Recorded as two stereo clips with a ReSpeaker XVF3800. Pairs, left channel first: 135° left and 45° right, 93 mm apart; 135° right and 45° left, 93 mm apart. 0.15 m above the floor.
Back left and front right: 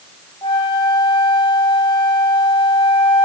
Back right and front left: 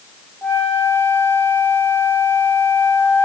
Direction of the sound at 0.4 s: 155° left.